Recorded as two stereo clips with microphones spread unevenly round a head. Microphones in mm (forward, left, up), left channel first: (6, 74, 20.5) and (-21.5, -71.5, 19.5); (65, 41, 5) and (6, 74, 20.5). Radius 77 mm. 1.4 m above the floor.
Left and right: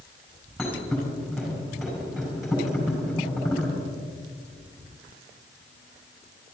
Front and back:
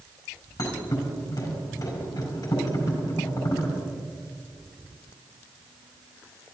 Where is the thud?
10° right, 5 m.